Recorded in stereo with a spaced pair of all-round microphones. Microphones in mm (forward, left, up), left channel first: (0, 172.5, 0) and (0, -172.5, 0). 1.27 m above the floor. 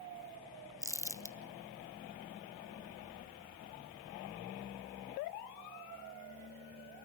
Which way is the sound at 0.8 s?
10° left (ahead or behind).